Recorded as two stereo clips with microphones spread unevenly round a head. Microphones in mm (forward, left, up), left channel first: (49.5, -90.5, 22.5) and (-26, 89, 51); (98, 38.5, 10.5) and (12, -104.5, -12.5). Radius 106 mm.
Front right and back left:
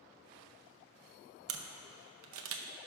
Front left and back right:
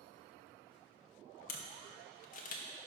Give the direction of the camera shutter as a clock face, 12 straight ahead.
9 o'clock.